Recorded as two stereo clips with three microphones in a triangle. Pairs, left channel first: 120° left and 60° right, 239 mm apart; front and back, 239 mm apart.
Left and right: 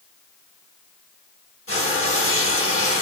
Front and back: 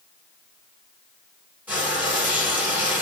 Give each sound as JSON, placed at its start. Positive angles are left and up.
{"t": 1.7, "sound": "frying", "azimuth_deg": 100, "distance_m": 4.0}